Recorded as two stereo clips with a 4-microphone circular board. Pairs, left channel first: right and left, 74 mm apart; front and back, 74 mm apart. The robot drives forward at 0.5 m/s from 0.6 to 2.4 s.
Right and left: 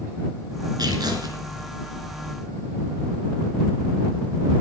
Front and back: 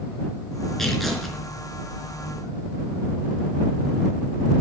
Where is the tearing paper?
85° left, 3 m; by 1.4 s 90° left, 3 m.